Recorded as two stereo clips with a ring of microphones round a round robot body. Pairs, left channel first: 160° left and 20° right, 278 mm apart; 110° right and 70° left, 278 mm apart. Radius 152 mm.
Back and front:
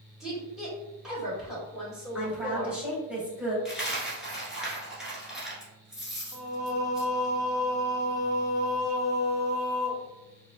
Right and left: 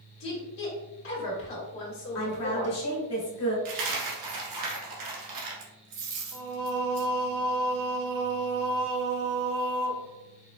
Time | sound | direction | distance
0.2 | a woman speaking | 110° right | 1.7 m
2.1 | a woman speaking | 110° right | 1.6 m
3.6 | a dropped coin | 65° left | 1.2 m
6.3 | singing | 55° left | 0.6 m